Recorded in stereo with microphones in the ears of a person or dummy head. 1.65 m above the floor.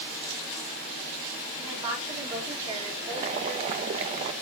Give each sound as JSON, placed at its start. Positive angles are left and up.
{"t": 1.6, "sound": "a woman speaking", "side_deg": -30, "distance_m": 4.0}
{"t": 3.1, "sound": "boiling", "side_deg": -30, "distance_m": 0.9}